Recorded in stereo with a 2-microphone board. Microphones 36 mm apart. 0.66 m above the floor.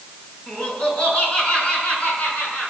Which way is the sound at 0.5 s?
25° left (ahead or behind).